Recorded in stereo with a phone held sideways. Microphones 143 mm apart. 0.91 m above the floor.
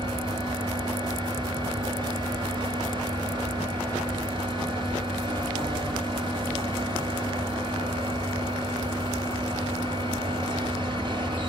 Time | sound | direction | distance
0.0 | a fan | 35° right (ahead or behind) | 2 m